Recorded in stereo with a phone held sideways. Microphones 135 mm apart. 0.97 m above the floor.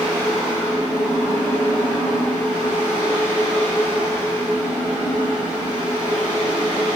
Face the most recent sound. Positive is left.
turn(degrees=-35)  # may be behind; listen again after turning